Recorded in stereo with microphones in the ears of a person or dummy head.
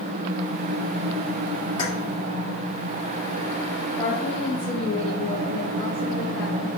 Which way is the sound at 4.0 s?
35° left (ahead or behind).